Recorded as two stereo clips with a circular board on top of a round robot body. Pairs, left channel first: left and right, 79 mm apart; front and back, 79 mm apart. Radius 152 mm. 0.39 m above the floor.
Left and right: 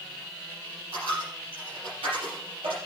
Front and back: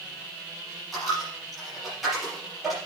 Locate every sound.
0.9 s a dropped coin: 90° right, 4.5 m